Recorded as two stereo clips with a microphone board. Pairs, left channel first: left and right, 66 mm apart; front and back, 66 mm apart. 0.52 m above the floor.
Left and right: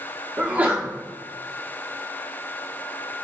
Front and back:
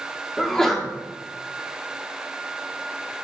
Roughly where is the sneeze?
Right.